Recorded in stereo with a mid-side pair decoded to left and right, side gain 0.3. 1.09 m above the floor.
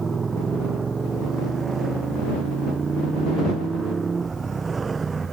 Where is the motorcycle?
50° right; by 5.3 s 45° right.